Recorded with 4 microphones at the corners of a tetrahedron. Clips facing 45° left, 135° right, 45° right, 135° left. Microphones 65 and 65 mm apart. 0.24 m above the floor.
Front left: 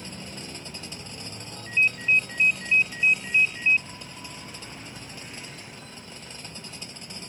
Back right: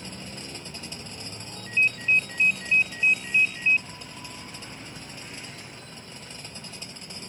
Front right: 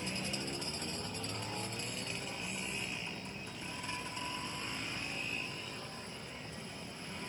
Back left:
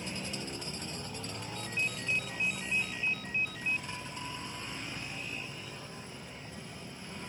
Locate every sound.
1.6 s a ringtone: 125° left